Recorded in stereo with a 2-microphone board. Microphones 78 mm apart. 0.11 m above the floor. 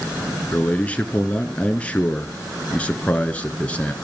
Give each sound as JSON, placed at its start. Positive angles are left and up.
{"t": 0.5, "sound": "a man speaking", "side_deg": 15, "distance_m": 1.3}